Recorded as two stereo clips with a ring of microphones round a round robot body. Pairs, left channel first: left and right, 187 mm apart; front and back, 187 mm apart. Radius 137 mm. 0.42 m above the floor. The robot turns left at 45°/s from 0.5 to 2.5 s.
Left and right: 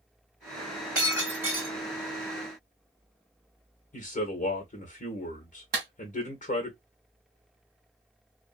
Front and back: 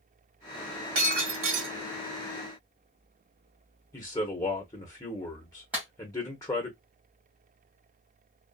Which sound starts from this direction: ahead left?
A man speaking, at 3.9 s.